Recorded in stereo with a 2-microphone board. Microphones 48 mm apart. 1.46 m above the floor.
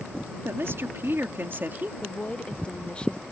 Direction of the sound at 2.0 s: 20° left (ahead or behind).